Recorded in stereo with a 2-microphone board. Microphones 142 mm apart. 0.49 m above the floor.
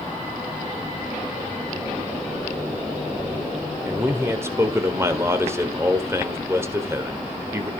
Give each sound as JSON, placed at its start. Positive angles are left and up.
{"t": 3.9, "sound": "a man speaking", "side_deg": -20, "distance_m": 1.7}